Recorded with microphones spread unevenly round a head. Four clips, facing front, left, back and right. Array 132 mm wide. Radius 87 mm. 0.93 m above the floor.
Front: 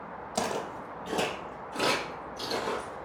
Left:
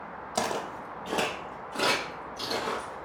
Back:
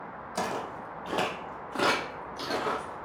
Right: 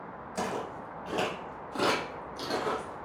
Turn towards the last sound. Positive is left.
turn(degrees=-105)